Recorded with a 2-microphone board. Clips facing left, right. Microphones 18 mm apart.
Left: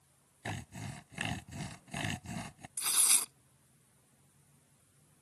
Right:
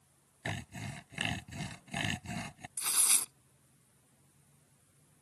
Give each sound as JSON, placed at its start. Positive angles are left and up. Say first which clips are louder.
{"t": 0.5, "sound": "sawing", "louder": "right 2 dB", "side_deg": -20}
{"t": 2.8, "sound": "tearing paper", "louder": "left 1 dB", "side_deg": 15}